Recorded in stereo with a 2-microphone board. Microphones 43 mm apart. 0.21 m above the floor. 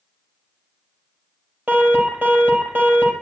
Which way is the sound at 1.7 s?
40° right (ahead or behind).